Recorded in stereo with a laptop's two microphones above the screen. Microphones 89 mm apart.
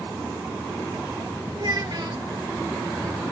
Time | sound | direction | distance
1.6 | a child speaking | 55° right (ahead or behind) | 1.7 m